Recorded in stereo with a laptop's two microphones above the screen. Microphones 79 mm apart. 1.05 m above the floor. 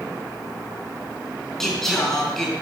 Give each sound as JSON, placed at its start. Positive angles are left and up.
{"t": 1.6, "sound": "singing", "side_deg": 5, "distance_m": 4.0}